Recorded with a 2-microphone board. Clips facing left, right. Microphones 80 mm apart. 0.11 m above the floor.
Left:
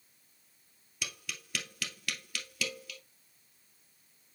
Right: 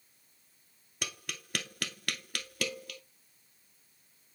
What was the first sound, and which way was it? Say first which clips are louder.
Tapping: right 2 dB; 50° right (ahead or behind).